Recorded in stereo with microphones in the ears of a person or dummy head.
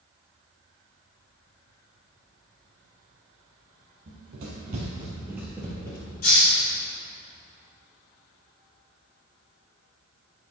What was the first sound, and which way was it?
Running footsteps, 55° right (ahead or behind).